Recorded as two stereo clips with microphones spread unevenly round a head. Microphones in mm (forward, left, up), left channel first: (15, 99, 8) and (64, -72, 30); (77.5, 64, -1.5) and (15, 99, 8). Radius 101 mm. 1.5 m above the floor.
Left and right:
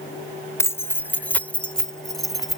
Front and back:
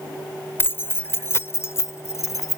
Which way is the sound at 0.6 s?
30° left.